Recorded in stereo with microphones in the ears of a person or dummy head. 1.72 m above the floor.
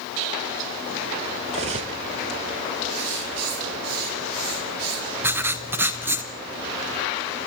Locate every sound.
1.5 s cutlery clinking: 25° right (ahead or behind), 1.0 m
2.9 s writing: 80° right, 6 m
5.2 s writing: 10° right (ahead or behind), 0.9 m